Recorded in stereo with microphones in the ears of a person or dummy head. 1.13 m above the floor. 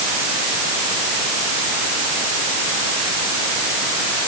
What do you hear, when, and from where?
Only background noise.